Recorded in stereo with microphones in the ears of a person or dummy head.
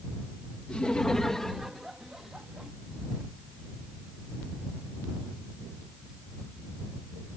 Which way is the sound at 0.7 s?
5° left (ahead or behind).